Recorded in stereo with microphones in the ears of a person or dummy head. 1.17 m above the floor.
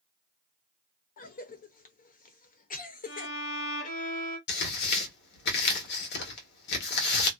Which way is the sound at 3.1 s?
40° left (ahead or behind).